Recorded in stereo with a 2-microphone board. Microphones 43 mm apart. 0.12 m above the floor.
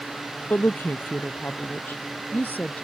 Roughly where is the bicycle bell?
No bicycle bell in this recording.